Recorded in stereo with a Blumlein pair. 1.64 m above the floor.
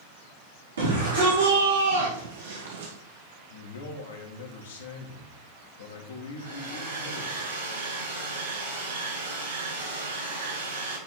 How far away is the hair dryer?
About 4.5 m.